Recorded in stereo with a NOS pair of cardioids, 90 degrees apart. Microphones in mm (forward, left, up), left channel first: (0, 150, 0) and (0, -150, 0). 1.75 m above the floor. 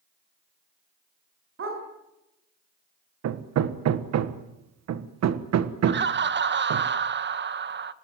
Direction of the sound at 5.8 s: 35° right.